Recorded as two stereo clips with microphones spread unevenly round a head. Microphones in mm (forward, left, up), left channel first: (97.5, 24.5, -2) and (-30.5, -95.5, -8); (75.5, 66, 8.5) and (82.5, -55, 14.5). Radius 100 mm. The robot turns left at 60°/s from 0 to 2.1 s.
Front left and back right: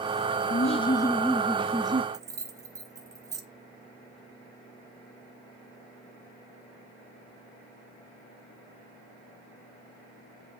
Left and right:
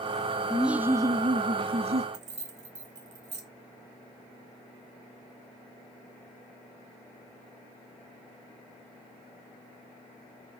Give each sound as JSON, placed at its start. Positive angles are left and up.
{"t": 0.5, "sound": "laughter", "azimuth_deg": 5, "distance_m": 0.9}
{"t": 2.1, "sound": "keys jangling", "azimuth_deg": -65, "distance_m": 1.9}